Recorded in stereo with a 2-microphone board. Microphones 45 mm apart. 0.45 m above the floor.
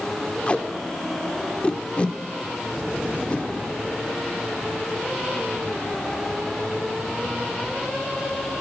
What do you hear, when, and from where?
0.5 s tape being pulled: 30° left (ahead or behind), 0.7 m